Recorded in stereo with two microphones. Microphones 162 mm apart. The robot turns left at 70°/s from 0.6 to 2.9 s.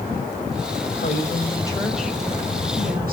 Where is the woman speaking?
65° left, 4.5 m; by 3.1 s 65° right, 4.5 m.